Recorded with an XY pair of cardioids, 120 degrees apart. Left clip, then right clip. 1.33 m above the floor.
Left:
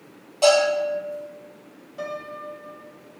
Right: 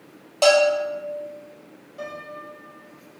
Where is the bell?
50° right, 1.5 m.